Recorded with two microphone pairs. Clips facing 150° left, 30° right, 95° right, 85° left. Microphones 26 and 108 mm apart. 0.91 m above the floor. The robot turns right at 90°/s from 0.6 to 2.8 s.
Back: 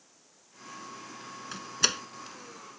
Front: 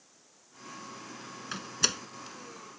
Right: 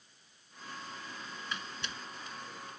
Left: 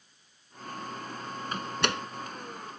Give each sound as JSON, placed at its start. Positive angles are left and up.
{"t": 1.5, "sound": "a door slam", "azimuth_deg": 45}